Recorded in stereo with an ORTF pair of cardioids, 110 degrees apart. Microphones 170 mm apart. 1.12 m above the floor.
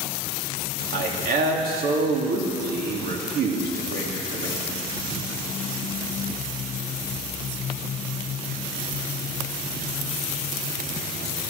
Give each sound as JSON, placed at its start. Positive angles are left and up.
{"t": 0.9, "sound": "a man speaking", "azimuth_deg": -65, "distance_m": 3.0}